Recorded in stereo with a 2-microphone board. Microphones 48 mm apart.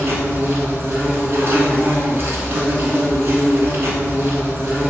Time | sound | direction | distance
0.0 | an insect | 50° right (ahead or behind) | 0.8 m